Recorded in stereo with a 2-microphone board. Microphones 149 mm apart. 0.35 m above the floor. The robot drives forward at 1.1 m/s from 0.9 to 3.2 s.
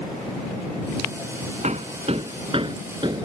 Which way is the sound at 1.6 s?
50° right (ahead or behind).